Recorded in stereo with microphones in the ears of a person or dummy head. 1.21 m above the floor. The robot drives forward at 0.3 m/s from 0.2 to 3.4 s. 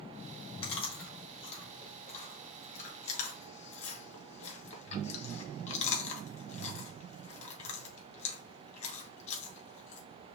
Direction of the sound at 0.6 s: 30° left (ahead or behind).